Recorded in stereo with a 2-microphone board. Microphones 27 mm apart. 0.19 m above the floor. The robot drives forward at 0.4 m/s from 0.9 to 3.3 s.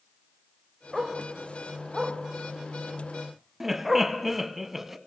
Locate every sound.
0.9 s a dog barking: 5° right (ahead or behind), 5 m
3.6 s laughter: 10° right (ahead or behind), 1.5 m